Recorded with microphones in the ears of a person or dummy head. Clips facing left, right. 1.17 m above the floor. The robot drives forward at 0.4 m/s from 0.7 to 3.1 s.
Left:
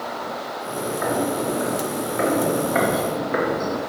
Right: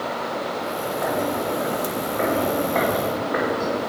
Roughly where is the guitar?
No guitar in this recording.